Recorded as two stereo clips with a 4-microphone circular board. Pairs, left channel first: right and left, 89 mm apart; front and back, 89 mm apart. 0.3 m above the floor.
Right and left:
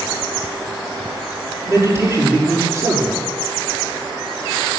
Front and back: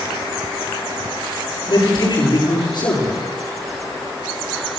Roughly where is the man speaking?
Ahead left.